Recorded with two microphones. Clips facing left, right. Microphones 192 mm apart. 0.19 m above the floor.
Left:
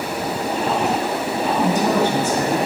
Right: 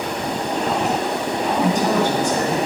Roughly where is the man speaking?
Centre.